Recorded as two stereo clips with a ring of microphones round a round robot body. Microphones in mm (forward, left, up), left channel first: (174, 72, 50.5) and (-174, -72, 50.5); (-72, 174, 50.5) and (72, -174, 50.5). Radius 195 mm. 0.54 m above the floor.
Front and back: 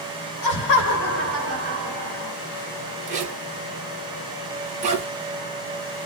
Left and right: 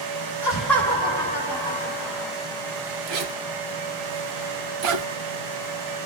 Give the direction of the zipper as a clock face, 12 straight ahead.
3 o'clock.